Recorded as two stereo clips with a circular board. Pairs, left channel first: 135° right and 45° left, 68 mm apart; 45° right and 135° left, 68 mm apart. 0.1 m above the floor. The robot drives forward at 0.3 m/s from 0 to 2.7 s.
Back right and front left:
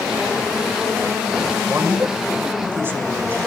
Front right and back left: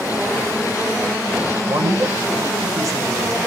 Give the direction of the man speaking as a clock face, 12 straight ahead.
9 o'clock.